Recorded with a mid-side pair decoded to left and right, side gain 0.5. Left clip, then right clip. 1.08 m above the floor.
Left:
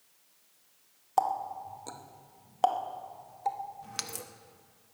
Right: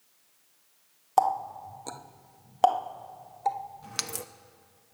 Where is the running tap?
25° right, 0.8 m.